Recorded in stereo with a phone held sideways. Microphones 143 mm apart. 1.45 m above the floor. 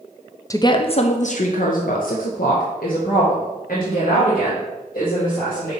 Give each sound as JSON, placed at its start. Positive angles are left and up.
{"t": 0.5, "sound": "a woman speaking", "side_deg": 25, "distance_m": 0.5}